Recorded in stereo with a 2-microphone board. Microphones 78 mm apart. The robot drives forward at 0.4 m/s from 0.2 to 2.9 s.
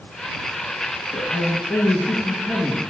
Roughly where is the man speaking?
Left.